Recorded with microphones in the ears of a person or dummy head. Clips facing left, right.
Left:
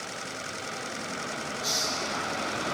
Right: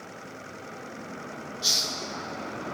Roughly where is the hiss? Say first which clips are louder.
Left 4 dB; right.